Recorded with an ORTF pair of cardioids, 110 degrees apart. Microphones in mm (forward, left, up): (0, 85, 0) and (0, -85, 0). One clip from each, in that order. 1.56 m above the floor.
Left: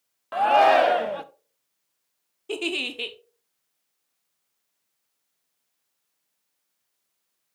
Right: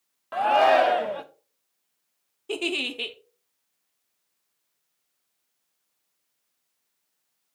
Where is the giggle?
Straight ahead, 0.8 m.